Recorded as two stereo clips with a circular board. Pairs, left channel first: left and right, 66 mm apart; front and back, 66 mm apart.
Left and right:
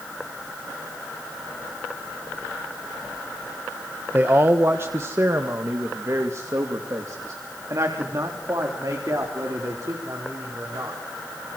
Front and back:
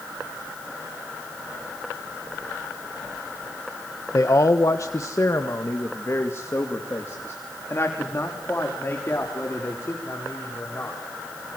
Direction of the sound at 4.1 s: 30° right.